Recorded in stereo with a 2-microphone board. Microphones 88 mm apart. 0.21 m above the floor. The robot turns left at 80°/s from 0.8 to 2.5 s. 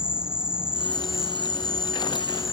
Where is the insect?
10° right; by 2.5 s 145° right.